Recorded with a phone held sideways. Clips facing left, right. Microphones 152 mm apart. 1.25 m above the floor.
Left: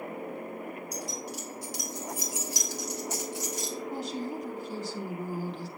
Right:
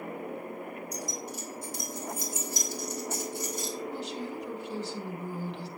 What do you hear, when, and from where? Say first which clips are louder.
0.9 s keys jangling: even; 75° left (ahead or behind), 4 m; by 3.7 s 80° left, 3 m
3.9 s a woman speaking: left 2 dB; 45° left (ahead or behind), 3 m